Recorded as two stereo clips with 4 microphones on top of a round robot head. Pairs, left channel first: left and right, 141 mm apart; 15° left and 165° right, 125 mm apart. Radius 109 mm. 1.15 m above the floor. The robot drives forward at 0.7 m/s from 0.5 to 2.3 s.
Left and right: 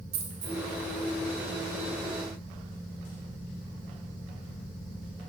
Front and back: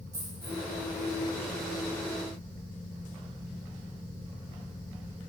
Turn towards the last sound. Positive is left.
turn(degrees=-140)